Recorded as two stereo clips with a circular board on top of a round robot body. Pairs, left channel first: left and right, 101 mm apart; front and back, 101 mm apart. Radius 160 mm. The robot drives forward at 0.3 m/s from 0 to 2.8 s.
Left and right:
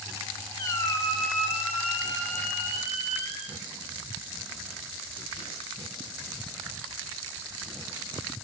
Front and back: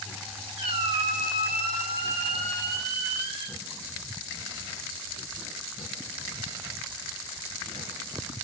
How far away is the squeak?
About 0.8 m.